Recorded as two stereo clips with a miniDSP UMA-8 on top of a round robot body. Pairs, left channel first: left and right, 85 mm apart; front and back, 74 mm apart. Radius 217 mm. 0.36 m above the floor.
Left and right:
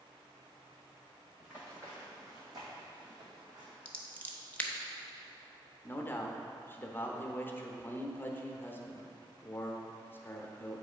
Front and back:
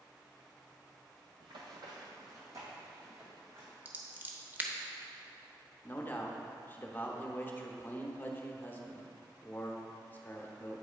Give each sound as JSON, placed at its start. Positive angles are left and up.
{"t": 1.4, "sound": "running footsteps", "azimuth_deg": -165, "distance_m": 0.7}
{"t": 3.9, "sound": "scissors", "azimuth_deg": 145, "distance_m": 1.2}
{"t": 5.8, "sound": "a man speaking", "azimuth_deg": 45, "distance_m": 1.0}